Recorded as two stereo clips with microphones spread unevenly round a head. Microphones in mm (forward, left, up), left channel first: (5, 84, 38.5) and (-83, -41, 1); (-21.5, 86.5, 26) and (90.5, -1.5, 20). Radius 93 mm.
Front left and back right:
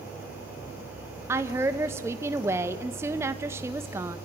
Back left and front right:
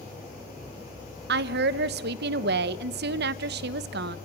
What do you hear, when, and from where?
1.3 s a woman speaking: 45° right, 1.0 m